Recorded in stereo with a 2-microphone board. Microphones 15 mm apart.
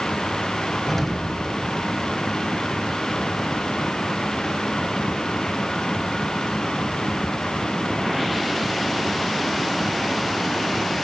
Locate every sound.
0.9 s an explosion: 35° left (ahead or behind), 2 m